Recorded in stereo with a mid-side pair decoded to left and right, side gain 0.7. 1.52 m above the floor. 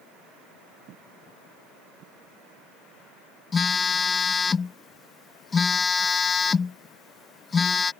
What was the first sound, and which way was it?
A phone buzzing, 25° left.